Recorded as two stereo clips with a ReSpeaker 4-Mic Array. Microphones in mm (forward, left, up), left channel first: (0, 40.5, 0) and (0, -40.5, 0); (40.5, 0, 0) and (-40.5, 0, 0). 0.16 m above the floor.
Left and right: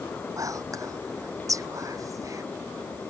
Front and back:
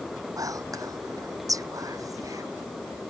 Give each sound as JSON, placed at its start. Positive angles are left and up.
{"t": 0.4, "sound": "whispering", "azimuth_deg": -135}